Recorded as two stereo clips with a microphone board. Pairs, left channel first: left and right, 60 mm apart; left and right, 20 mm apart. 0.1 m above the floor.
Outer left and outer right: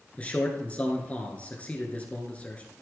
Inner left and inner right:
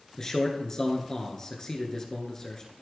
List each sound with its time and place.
0.2 s a man speaking: 25° left (ahead or behind), 1.4 m